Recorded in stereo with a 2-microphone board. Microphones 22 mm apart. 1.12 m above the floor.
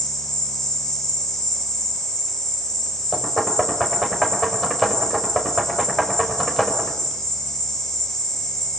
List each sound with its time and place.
0.0 s an insect: 25° left (ahead or behind), 8.5 m
3.1 s knocking: centre (ahead or behind), 5.5 m